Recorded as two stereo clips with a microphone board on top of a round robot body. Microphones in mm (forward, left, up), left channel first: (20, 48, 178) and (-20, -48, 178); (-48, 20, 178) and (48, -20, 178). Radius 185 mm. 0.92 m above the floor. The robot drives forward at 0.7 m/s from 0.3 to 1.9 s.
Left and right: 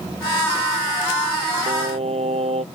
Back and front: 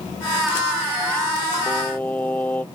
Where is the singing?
125° right; by 2.6 s 130° right.